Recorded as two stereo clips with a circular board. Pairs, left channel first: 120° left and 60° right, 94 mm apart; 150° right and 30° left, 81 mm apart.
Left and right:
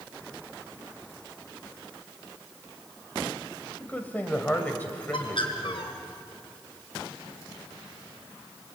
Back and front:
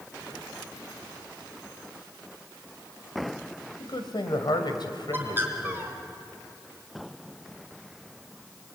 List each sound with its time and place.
3.8 s a man speaking: 170° right, 2.5 m
5.1 s a bird: 95° left, 3 m